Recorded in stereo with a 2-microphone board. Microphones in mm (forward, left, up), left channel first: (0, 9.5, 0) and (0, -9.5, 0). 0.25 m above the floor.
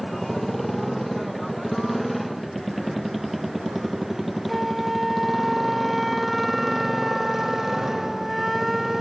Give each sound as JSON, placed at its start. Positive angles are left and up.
{"t": 0.0, "sound": "a motorcycle", "side_deg": 5}
{"t": 4.5, "sound": "a flute", "side_deg": -5}